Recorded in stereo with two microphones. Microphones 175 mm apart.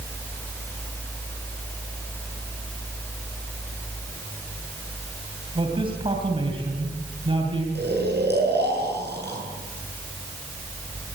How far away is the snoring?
About 8.5 m.